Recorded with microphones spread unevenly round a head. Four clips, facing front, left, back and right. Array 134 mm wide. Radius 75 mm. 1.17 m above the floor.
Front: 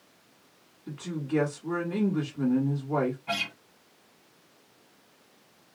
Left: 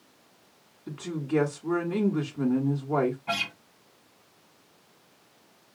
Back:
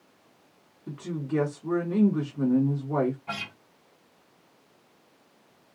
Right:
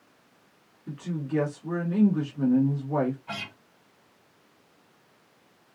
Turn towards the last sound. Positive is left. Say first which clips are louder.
# left 6 dB, front 3 dB
turn(degrees=105)